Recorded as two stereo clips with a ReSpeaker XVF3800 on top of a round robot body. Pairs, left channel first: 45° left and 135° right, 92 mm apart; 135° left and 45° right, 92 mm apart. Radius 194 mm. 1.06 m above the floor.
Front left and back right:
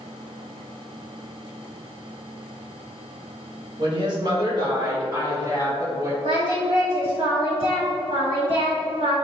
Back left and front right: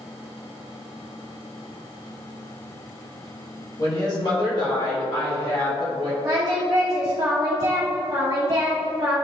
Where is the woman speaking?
175° right, 1.6 m; by 6.1 s 165° left, 3.5 m.